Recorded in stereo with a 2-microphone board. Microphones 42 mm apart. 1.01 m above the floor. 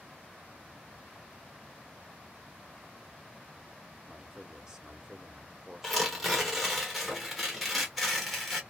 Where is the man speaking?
15° right (ahead or behind), 0.8 m.